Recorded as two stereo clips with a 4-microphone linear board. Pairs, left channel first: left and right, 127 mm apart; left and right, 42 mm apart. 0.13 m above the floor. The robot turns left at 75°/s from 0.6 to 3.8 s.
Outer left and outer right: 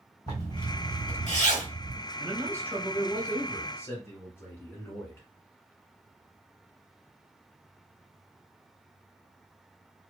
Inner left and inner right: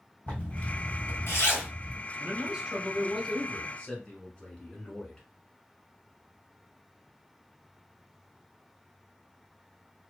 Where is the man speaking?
25° right (ahead or behind), 1.1 m; by 5.3 s 20° left (ahead or behind), 1.1 m.